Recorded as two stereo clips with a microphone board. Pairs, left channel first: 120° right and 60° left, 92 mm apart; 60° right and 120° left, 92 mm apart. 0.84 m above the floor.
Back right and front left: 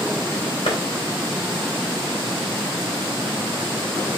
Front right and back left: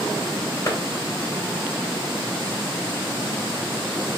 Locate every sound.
0.7 s a clap: 115° right, 2.5 m